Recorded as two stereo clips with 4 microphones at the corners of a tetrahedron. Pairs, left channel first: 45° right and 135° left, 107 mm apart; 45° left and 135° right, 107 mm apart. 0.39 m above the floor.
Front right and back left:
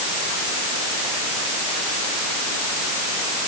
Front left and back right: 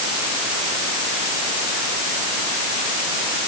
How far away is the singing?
No singing in this recording.